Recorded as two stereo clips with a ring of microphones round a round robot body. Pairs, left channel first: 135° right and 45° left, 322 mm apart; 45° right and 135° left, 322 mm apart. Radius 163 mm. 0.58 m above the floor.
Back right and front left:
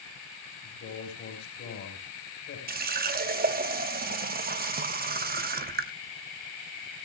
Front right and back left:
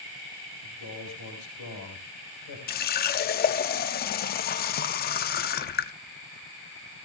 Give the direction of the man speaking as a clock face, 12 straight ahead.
3 o'clock.